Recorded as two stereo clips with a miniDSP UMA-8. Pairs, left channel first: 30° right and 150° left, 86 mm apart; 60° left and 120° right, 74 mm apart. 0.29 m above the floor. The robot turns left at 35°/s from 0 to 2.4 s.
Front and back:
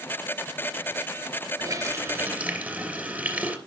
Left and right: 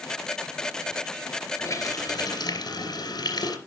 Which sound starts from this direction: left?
A running tap, at 1.6 s.